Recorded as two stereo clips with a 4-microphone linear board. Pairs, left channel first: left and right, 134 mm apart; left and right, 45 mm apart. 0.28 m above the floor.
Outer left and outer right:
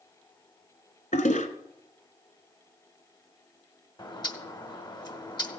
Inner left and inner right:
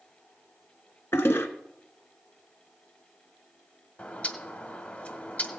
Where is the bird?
35° left (ahead or behind), 1.1 m.